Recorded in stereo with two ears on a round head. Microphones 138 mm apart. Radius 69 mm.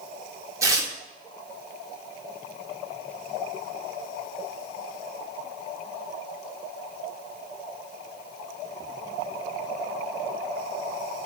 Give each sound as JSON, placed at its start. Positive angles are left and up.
{"t": 0.6, "sound": "tearing paper", "side_deg": -20, "distance_m": 0.7}